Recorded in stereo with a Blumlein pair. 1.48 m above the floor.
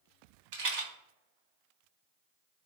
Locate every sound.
0.5 s a rattle: 50° right, 1.1 m